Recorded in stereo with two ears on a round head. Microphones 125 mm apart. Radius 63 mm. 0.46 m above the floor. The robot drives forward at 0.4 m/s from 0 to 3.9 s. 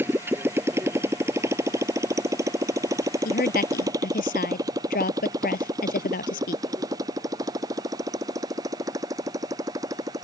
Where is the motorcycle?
15° right (ahead or behind); by 10.2 s 25° right (ahead or behind).